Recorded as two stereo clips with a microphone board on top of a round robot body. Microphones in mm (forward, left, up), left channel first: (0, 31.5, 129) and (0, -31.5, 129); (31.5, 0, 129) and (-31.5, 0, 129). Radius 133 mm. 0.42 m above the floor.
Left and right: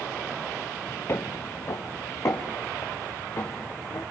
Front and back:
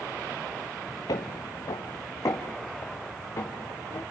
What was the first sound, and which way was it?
Footsteps, 30° left.